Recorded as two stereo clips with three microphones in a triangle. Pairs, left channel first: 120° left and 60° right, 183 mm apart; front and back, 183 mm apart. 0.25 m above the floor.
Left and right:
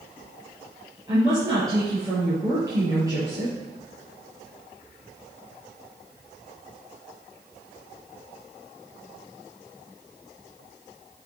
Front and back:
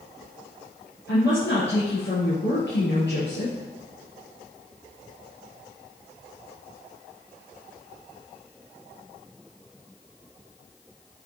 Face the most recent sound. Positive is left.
turn(degrees=10)